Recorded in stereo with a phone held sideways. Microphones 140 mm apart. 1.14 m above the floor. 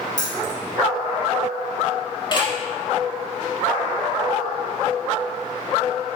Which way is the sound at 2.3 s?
35° left (ahead or behind).